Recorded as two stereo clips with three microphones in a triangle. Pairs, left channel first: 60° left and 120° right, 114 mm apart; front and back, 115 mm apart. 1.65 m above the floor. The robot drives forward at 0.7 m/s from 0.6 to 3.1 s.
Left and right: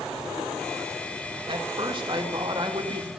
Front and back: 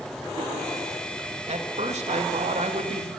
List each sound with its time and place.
1.5 s a man speaking: 165° right, 2.5 m; by 3.1 s 170° right, 3.5 m